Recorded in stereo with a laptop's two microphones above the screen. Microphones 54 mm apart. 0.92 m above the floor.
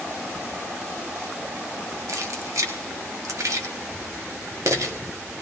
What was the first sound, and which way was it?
Keys jangling, 75° right (ahead or behind).